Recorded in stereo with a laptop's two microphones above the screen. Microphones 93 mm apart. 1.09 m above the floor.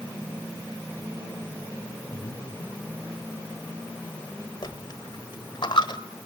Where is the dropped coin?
55° left (ahead or behind), 1.4 m.